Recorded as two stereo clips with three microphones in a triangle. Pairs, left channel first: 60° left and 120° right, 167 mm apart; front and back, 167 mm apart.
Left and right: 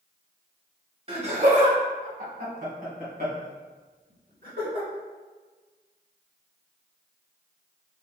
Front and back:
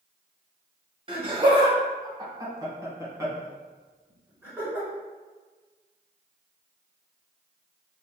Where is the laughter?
145° right, 1.2 m; by 4.9 s 100° right, 3 m.